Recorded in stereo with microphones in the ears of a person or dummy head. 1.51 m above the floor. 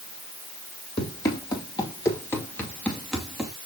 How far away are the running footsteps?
About 3.5 m.